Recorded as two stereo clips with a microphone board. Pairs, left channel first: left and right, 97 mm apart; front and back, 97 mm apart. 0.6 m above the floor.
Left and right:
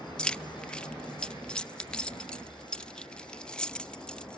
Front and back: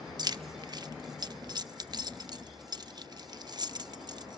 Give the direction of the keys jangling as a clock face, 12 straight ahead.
6 o'clock.